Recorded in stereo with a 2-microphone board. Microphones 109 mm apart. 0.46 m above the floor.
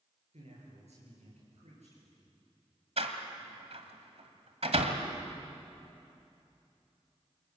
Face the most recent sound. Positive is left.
turn(degrees=-70)  # may be behind; listen again after turning